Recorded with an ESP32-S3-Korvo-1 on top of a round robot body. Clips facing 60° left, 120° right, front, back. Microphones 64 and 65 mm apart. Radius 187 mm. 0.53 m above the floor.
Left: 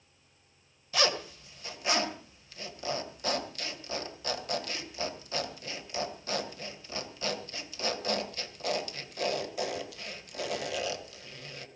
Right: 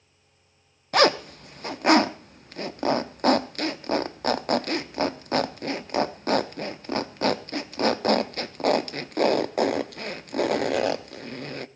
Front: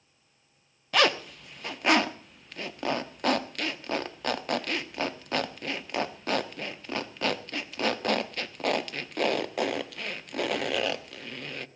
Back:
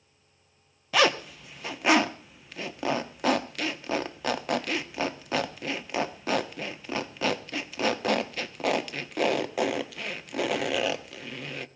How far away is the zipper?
About 1.0 m.